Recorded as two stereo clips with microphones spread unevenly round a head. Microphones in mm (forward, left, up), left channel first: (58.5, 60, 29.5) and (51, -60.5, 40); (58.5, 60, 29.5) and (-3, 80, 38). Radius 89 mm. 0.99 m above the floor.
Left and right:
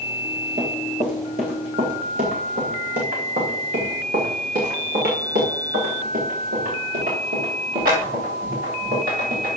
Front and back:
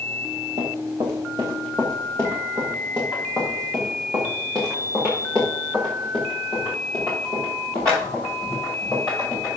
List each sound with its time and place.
0.6 s running footsteps: 140° right, 3 m; by 9.6 s 100° right, 7.5 m